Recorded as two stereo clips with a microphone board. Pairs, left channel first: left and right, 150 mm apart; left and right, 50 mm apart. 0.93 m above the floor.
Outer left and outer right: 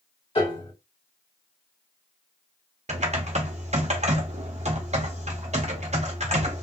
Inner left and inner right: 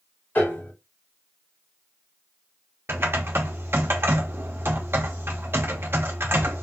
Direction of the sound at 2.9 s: 50° right (ahead or behind).